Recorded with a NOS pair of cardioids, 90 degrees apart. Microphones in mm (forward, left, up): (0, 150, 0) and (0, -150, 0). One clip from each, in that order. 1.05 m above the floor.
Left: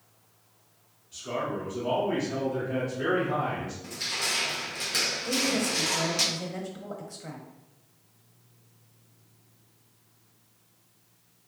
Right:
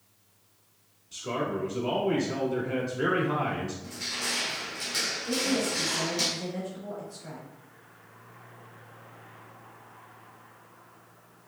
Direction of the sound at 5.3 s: 30° left.